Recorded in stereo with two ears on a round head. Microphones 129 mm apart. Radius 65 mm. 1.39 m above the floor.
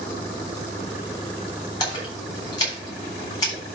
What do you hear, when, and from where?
1.8 s a splash: 35° left (ahead or behind), 6.5 m